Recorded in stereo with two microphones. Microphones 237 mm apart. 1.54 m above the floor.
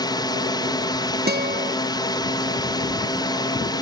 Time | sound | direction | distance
0.0 | a drone | 15° left (ahead or behind) | ?
1.3 | a guitar | 40° right (ahead or behind) | ?